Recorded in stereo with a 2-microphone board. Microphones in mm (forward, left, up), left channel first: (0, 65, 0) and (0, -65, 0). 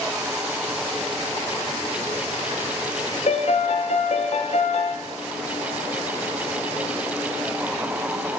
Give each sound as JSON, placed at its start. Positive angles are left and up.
{"t": 3.3, "sound": "a piano", "side_deg": 60, "distance_m": 0.6}